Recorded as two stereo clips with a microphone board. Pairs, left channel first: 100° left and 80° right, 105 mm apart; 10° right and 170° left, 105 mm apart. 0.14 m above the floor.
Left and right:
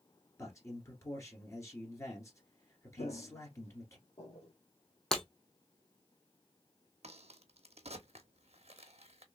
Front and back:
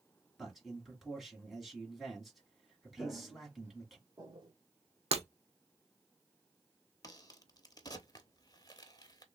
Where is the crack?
65° right, 0.7 m.